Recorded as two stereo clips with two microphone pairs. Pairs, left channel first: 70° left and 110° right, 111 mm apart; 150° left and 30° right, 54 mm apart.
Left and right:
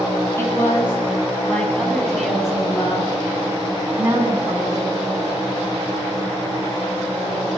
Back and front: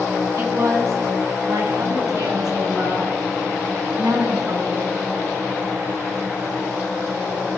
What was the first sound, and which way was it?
A woman speaking, straight ahead.